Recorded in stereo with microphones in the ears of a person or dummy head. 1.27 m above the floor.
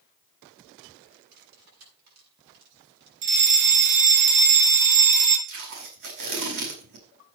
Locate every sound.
1.3 s cutlery clinking: 55° right (ahead or behind), 8.5 m
3.2 s a fire alarm: 40° right (ahead or behind), 3 m
5.5 s tape being pulled: 70° right (ahead or behind), 5 m